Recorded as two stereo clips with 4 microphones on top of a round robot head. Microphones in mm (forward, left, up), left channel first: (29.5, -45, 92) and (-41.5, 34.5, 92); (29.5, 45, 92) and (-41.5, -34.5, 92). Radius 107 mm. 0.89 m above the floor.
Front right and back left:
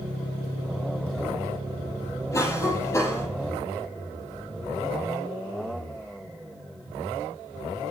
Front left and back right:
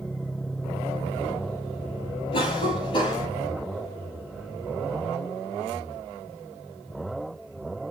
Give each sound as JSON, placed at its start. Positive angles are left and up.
{"t": 2.3, "sound": "a cough", "azimuth_deg": 15, "distance_m": 6.0}